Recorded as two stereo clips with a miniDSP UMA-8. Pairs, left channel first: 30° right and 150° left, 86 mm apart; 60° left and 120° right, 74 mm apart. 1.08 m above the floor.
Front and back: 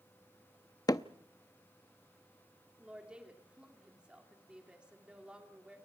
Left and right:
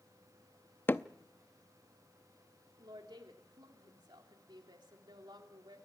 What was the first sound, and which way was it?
Hammering, 5° left.